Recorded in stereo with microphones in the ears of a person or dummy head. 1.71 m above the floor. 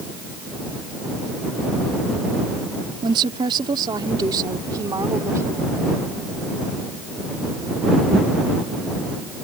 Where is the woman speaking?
30° right (ahead or behind); by 5.8 s 15° right (ahead or behind).